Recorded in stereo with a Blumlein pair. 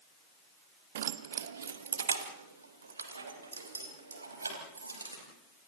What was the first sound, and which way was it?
Keys jangling, 60° right.